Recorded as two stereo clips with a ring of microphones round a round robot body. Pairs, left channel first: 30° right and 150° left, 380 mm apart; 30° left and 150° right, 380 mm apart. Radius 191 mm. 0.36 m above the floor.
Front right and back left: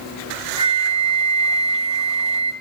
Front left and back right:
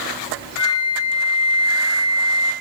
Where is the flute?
75° left, 4 m.